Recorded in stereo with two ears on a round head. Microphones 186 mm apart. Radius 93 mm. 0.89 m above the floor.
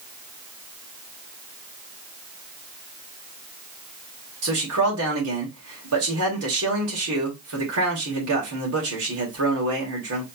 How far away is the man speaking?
About 2.5 m.